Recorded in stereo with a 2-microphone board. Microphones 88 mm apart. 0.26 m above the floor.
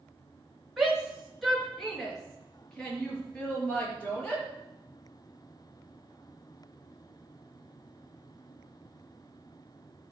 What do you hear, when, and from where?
0.8 s a shout: 5° right (ahead or behind), 3.5 m; by 4.4 s 15° left (ahead or behind), 7 m